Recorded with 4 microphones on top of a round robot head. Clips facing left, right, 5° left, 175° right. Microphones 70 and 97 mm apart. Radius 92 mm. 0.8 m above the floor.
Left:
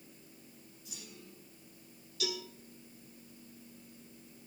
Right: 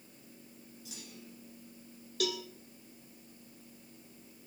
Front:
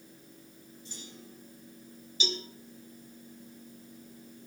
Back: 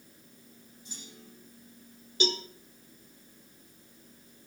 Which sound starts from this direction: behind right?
A cowbell, at 2.2 s.